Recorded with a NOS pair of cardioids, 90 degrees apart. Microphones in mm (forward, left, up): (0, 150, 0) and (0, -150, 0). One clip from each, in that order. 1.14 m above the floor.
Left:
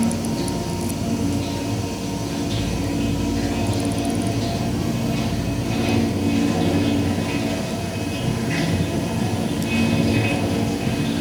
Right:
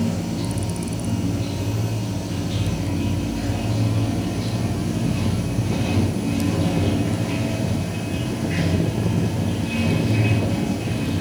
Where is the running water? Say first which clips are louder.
Left 3 dB; 20° left, 1.9 m.